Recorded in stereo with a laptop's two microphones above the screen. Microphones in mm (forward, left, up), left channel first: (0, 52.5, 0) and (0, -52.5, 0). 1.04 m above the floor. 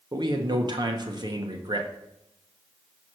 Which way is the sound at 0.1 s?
40° right (ahead or behind).